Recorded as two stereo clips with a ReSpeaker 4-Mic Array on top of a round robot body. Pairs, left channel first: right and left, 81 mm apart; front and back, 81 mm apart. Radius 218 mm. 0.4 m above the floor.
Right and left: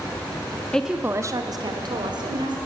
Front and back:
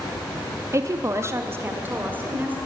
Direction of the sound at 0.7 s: 160° right.